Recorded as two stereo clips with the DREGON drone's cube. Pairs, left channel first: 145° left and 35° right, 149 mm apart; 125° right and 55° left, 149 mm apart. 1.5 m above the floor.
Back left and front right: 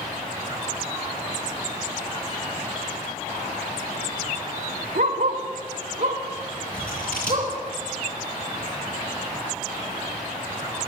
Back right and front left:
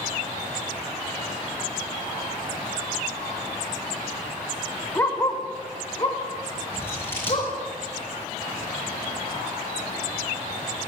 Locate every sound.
5.0 s a dog barking: 50° right, 2.5 m; by 7.5 s 75° right, 4 m
6.7 s scissors: 160° left, 8.5 m